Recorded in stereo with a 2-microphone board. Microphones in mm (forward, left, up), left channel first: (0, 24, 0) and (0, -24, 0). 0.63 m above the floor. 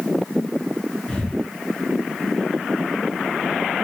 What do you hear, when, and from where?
1.1 s breathing: 20° left (ahead or behind), 7 m